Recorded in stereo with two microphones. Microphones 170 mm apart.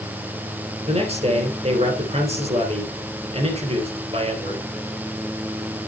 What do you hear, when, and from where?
0.9 s a man speaking: 35° right (ahead or behind), 3.5 m